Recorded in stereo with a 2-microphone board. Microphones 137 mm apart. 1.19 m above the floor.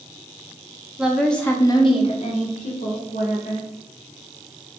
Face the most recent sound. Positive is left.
turn(degrees=85)